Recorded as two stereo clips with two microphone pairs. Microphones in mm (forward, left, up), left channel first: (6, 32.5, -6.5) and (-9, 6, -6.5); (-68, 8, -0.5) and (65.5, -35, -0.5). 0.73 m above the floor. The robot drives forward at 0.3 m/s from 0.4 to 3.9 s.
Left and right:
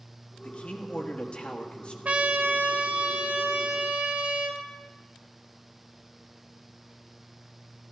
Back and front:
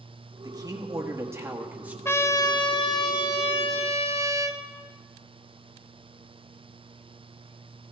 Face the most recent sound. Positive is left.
turn(degrees=-155)